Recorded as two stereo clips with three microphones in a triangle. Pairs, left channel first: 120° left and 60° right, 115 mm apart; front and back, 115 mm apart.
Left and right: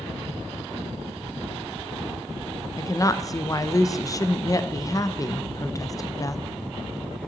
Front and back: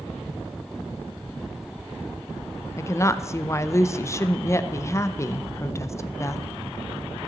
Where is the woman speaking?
65° left, 0.6 m.